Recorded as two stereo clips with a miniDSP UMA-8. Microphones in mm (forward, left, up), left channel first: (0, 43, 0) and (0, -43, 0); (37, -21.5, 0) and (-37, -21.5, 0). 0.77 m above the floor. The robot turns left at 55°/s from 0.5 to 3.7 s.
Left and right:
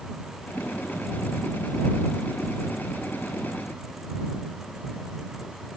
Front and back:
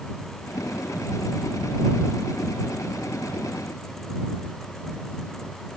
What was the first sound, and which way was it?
Only background noise.